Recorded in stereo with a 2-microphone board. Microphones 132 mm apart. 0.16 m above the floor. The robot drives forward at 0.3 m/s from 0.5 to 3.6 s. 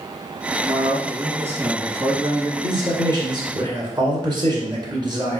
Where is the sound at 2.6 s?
30° right (ahead or behind), 1.9 m; by 5.4 s 35° right (ahead or behind), 1.8 m.